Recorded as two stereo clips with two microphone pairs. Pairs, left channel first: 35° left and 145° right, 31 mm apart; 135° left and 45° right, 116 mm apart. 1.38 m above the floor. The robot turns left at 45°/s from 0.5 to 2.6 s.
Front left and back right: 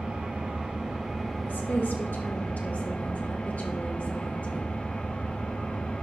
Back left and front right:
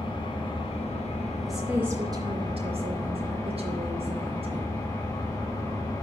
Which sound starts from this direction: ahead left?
A woman speaking, at 1.4 s.